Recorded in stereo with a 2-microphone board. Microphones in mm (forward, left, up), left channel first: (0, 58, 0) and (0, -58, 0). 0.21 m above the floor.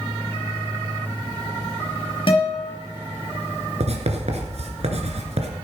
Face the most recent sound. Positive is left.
turn(degrees=-70)  # may be behind; listen again after turning